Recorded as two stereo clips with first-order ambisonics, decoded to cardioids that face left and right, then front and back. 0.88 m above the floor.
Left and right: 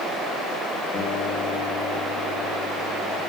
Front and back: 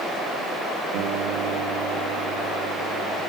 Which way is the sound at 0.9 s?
155° left.